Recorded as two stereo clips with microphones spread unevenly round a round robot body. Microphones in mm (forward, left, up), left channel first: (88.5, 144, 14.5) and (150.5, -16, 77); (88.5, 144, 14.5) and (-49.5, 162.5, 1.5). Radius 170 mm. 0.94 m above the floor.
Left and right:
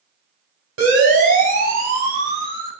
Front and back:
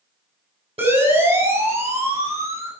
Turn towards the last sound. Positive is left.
turn(degrees=-120)